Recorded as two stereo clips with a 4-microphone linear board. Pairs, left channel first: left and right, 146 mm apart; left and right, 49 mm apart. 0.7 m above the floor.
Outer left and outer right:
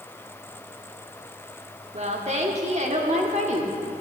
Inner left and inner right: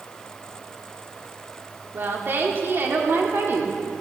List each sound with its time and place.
1.9 s a woman speaking: 50° right (ahead or behind), 1.6 m